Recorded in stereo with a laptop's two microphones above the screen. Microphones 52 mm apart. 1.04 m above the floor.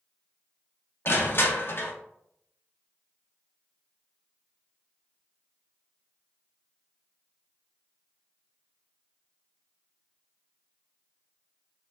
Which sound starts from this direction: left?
Crushing, at 1.1 s.